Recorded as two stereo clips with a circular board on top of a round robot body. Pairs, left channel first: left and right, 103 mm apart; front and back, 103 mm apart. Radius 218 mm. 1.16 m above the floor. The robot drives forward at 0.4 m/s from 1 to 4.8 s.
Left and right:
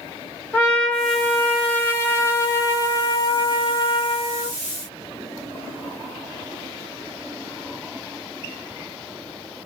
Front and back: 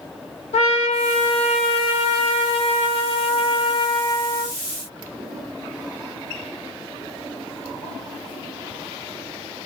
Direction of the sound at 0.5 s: 15° left.